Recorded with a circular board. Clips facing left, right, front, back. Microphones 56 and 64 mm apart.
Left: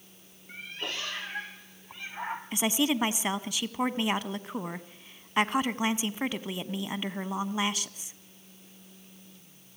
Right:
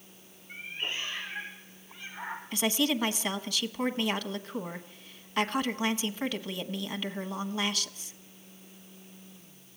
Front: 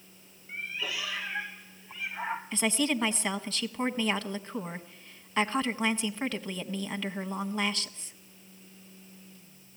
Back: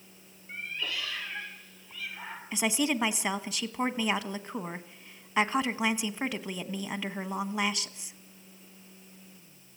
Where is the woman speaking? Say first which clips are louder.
Left 1 dB, back 1 dB; 125° left, 1.1 m.